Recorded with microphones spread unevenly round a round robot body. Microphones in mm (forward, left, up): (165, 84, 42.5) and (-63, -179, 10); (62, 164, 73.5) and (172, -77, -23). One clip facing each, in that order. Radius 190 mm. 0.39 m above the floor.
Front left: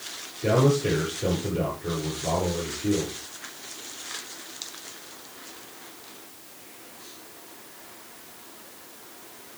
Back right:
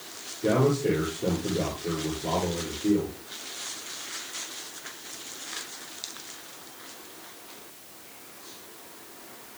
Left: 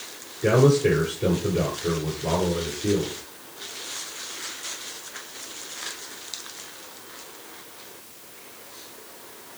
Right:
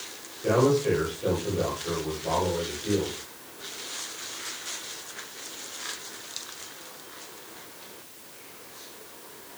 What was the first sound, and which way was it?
A man speaking, 120° left.